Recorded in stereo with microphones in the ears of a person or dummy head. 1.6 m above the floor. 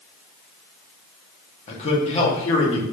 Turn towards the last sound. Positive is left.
turn(degrees=30)  # may be behind; listen again after turning